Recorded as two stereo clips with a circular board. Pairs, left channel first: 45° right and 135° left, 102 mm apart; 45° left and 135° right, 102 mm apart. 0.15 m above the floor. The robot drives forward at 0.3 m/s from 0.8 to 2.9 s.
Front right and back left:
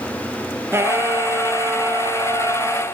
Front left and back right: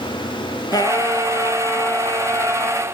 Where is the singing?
80° left, 2.0 m; by 2.8 s 100° left, 2.0 m.